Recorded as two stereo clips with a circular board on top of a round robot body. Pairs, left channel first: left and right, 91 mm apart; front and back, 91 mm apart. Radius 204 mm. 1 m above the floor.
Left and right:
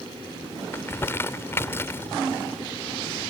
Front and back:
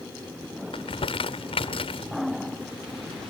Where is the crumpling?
25° left.